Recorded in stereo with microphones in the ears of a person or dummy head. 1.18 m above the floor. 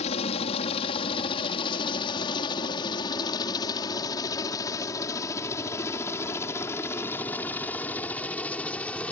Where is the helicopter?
35° left (ahead or behind); by 9.1 s 10° left (ahead or behind).